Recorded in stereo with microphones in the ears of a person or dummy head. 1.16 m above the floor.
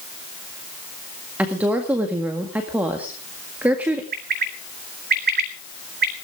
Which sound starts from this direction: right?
A bird, at 4.1 s.